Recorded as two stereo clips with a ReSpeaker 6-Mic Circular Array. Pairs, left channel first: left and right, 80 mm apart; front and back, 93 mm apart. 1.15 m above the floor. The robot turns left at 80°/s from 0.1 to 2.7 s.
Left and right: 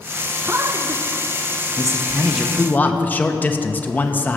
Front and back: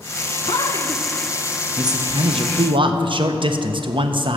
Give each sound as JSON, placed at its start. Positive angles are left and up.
{"t": 0.5, "sound": "a man speaking", "azimuth_deg": -25, "distance_m": 0.6}